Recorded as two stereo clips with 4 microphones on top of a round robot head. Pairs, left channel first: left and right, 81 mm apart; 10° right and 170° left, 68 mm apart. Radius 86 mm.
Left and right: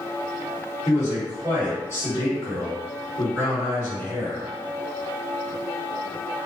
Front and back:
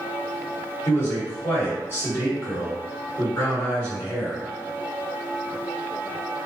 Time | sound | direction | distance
0.8 | a man speaking | 40° left | 1.9 m